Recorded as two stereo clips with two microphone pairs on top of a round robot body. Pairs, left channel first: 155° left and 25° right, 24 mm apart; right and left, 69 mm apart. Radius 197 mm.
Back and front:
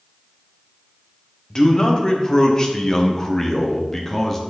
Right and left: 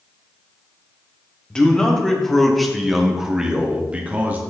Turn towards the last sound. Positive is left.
turn(degrees=105)